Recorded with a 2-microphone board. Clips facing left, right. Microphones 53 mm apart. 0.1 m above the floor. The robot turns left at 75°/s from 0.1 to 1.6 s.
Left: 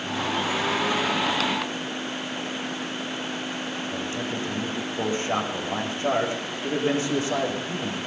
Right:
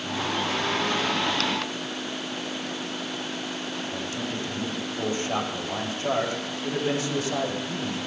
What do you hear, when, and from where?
3.9 s a man speaking: 30° left (ahead or behind), 7.5 m